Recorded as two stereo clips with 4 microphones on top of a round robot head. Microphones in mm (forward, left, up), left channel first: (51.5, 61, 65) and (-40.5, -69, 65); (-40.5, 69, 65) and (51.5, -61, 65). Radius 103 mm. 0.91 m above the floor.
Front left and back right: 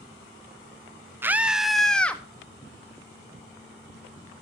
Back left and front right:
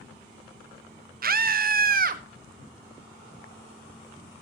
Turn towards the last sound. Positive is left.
turn(degrees=-25)